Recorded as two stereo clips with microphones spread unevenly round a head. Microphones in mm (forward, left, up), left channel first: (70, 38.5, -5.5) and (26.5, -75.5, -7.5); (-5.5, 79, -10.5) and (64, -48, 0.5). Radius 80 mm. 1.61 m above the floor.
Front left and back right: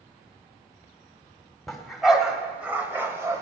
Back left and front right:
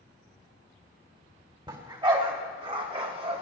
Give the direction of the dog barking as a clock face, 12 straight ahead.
1 o'clock.